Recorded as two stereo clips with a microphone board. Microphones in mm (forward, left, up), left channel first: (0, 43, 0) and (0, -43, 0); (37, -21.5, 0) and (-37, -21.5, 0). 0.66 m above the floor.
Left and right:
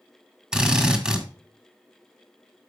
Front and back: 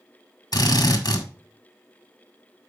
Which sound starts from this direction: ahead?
A drill, at 0.5 s.